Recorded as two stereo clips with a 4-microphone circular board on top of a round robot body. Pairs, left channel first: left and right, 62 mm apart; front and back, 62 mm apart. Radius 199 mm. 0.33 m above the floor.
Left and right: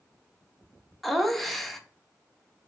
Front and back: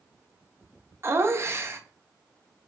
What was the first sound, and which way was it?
Laughter, 175° left.